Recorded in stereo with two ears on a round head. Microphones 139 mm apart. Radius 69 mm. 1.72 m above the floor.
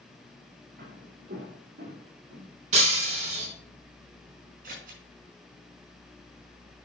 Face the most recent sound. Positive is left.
turn(degrees=-60)  # may be behind; listen again after turning